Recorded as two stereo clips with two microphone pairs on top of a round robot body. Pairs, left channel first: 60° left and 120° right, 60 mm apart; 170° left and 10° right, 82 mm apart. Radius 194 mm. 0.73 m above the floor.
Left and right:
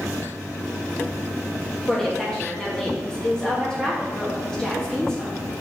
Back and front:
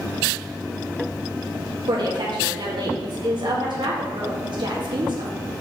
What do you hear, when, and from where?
1.9 s a woman speaking: 15° right, 2.0 m